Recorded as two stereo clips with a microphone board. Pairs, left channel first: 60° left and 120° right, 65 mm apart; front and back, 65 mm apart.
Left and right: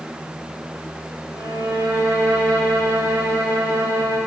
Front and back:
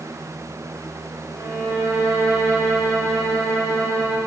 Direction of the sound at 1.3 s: 140° right.